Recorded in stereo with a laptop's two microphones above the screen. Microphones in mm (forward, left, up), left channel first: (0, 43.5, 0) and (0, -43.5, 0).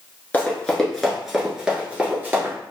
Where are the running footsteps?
20° left (ahead or behind), 1.0 m; by 2.5 s 25° right (ahead or behind), 1.4 m.